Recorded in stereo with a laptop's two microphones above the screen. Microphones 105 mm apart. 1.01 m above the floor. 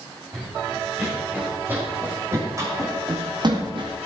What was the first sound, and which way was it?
Running footsteps, 5° right (ahead or behind).